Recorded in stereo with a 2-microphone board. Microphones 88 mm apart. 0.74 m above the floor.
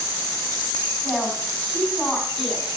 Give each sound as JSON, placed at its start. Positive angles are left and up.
{"t": 1.0, "sound": "a woman speaking", "side_deg": 0, "distance_m": 5.0}